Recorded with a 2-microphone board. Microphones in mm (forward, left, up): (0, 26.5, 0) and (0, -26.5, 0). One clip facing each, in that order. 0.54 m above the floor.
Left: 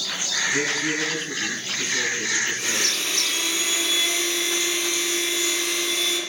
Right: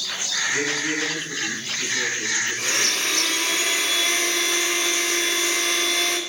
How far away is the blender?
About 2.5 m.